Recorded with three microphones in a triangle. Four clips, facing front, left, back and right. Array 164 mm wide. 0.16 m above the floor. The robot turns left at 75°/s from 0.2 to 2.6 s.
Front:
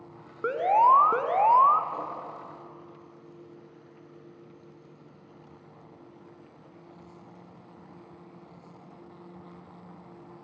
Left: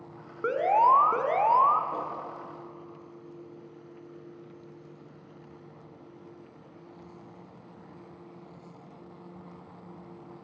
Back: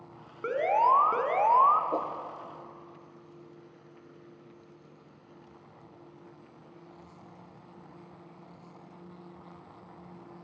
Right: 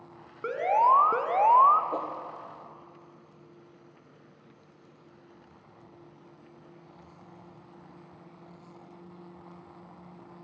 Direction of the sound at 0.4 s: 35° left.